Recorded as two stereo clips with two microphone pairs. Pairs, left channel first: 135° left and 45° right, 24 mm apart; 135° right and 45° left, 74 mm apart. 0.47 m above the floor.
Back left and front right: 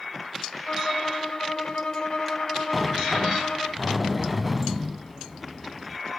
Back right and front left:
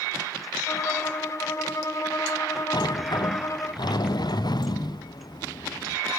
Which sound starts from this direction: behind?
A violin, at 0.7 s.